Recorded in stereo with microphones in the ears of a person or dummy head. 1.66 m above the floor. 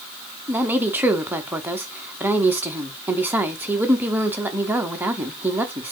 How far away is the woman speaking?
About 0.8 m.